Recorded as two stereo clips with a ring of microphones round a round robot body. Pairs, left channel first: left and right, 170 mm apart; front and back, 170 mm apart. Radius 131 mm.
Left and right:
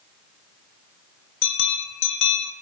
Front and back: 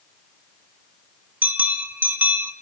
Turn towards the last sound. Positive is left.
turn(degrees=100)